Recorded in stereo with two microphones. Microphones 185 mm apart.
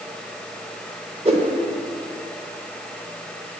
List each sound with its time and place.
1.2 s a whoosh: 35° right (ahead or behind), 1.0 m